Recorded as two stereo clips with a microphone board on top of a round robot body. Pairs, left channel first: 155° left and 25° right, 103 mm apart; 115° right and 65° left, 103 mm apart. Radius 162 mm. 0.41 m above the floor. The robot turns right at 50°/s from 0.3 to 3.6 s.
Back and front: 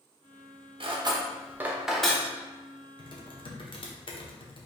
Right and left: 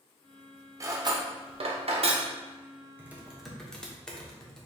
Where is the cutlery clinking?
10° left, 0.9 m; by 2.2 s 80° left, 0.9 m.